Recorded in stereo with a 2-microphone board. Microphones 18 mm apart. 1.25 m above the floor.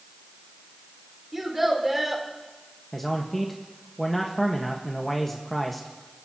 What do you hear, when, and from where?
1.3 s a child speaking: 15° right (ahead or behind), 3.5 m
2.9 s a man speaking: 10° left (ahead or behind), 1.4 m